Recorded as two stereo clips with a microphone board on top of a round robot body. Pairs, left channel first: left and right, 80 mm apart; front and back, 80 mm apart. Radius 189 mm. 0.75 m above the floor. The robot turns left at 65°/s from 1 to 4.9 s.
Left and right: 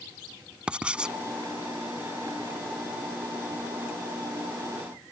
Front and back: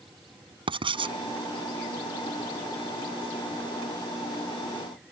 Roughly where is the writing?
Behind.